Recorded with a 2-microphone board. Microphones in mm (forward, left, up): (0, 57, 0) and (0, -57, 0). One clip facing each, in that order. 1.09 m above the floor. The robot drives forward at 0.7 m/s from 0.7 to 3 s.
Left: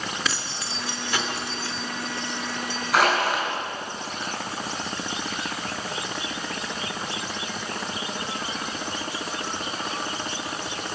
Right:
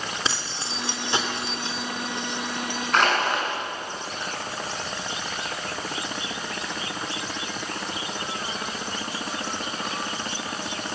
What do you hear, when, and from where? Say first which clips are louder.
0.2 s keys jangling: even; 25° right (ahead or behind), 2.5 m; by 2.8 s 15° right (ahead or behind), 4 m
2.9 s crushing: left 1 dB; 5° left (ahead or behind), 6 m